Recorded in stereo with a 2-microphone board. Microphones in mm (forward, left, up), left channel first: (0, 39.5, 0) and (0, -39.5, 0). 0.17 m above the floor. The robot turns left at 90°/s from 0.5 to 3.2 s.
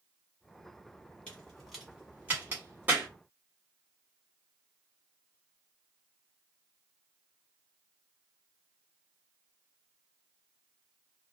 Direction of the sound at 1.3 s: 15° left (ahead or behind).